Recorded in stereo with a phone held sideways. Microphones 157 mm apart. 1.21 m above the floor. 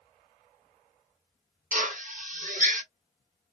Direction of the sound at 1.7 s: 50° right (ahead or behind).